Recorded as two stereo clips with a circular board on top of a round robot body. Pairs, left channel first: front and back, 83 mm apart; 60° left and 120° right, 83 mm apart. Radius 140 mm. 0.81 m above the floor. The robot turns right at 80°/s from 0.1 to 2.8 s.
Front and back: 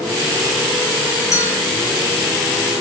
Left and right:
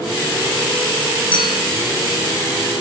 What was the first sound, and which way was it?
A clink, 50° left.